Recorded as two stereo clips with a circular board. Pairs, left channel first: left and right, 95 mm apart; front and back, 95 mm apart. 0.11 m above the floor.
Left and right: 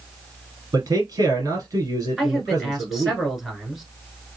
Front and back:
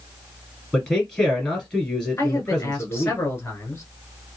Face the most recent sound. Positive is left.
turn(degrees=0)